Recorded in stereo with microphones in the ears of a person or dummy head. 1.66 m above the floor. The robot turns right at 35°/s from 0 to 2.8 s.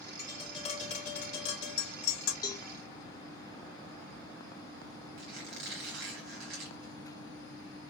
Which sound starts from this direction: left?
A cowbell, at 2.4 s.